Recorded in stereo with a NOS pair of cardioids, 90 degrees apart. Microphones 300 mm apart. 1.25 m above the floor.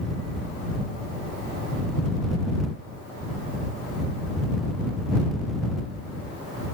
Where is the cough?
No cough in this recording.